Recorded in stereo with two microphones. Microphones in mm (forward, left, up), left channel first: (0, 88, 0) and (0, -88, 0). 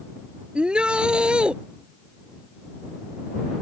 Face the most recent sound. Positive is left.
turn(degrees=-5)  # may be behind; listen again after turning